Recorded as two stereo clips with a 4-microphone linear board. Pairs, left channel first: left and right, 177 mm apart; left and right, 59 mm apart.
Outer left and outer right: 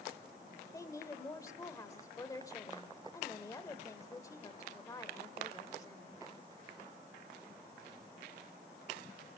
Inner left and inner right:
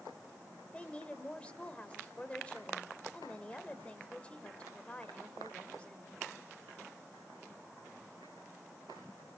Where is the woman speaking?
20° left (ahead or behind), 1.3 m.